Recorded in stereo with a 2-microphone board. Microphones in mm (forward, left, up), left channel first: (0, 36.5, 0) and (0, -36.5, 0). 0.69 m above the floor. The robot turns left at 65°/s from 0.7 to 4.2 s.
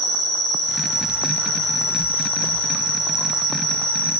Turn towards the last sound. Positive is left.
turn(degrees=-160)